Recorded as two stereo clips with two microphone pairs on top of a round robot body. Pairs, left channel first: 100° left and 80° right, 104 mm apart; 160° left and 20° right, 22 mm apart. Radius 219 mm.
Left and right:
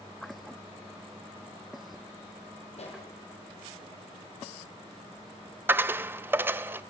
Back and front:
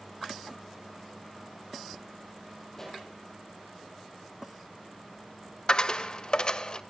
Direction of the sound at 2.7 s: 90° left.